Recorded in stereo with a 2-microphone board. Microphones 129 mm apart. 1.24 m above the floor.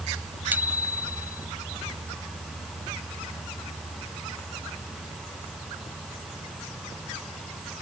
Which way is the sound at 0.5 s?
15° right (ahead or behind).